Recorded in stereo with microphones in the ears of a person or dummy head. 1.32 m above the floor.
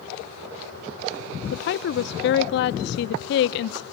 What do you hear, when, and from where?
1.5 s a woman speaking: 70° left (ahead or behind), 0.5 m